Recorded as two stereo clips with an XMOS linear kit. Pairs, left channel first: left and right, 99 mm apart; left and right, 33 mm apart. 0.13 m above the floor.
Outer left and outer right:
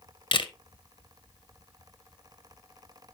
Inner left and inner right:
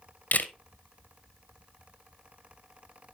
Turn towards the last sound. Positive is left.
turn(degrees=60)  # may be behind; listen again after turning